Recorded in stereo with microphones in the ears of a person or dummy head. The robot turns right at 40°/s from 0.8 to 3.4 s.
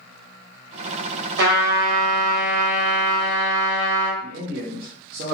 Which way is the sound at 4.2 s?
45° right (ahead or behind).